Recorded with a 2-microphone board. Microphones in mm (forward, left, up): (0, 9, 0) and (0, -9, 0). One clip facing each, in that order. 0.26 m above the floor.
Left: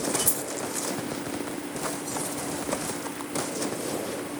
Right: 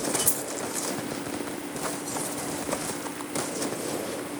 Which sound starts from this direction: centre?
A dropped coin, at 0.3 s.